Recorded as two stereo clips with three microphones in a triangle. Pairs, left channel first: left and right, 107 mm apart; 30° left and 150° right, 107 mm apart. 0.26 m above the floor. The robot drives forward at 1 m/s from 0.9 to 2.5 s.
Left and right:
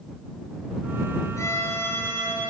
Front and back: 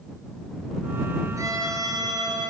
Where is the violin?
150° left, 1.5 m; by 2.5 s 165° left, 2.5 m.